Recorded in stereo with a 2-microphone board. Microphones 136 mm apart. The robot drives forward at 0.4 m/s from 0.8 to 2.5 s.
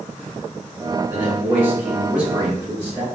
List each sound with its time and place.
1.1 s a man speaking: 15° right (ahead or behind), 0.9 m; by 3.0 s 10° right (ahead or behind), 1.3 m